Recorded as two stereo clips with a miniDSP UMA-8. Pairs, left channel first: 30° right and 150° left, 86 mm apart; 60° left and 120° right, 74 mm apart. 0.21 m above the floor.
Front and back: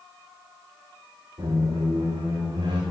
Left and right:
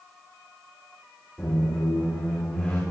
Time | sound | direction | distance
1.4 | a squeak | 130° left | 2.5 m